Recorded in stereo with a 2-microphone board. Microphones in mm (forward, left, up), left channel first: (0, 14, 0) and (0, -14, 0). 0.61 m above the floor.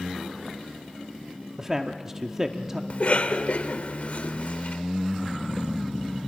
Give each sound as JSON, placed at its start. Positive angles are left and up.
{"t": 1.6, "sound": "a man speaking", "side_deg": -15, "distance_m": 0.8}
{"t": 2.9, "sound": "a cough", "side_deg": 45, "distance_m": 1.7}